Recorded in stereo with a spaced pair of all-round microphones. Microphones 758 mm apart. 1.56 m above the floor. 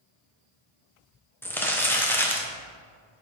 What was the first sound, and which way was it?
Crumpling, 5° left (ahead or behind).